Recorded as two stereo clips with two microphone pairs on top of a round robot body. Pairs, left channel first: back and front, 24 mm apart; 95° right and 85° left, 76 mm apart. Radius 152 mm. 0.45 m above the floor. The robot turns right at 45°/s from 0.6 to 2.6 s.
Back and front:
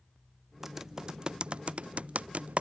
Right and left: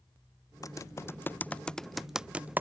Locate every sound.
0.6 s typing on a keyboard: 70° right; by 2.6 s 20° left